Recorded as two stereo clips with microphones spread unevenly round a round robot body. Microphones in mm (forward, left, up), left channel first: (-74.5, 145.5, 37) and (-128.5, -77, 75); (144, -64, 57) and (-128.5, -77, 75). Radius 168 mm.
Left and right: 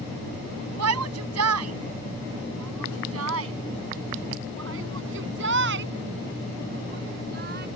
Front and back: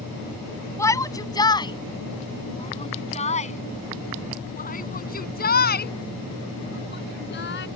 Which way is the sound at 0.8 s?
75° right.